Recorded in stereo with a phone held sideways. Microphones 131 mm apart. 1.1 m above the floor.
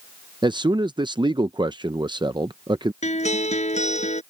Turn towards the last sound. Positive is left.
turn(degrees=60)  # may be behind; listen again after turning